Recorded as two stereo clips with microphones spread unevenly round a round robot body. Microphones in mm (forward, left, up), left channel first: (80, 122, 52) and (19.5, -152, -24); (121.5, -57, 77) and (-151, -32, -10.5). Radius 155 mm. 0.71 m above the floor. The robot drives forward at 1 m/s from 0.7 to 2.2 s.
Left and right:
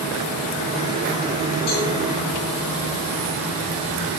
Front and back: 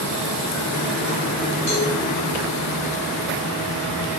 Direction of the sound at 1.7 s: 70° left.